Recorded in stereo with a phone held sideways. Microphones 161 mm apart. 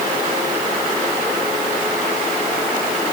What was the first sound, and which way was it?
Only background noise.